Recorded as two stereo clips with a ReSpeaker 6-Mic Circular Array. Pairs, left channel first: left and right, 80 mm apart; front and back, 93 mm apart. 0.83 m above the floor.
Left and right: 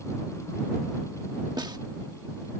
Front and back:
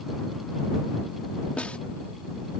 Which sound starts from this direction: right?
A snare drum, at 1.6 s.